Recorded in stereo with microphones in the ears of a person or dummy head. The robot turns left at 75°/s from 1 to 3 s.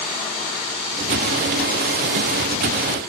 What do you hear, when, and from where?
Only background noise.